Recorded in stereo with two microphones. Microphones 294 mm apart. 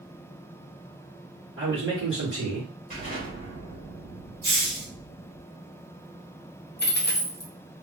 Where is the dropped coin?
35° left (ahead or behind), 0.7 m.